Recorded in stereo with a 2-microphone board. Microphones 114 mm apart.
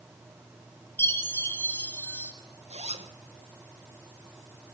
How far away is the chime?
About 3 m.